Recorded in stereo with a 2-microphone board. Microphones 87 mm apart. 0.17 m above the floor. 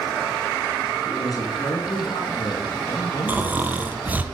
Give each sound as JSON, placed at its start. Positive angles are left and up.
{"t": 1.1, "sound": "a woman speaking", "side_deg": 45, "distance_m": 2.5}
{"t": 3.3, "sound": "snoring", "side_deg": -20, "distance_m": 0.8}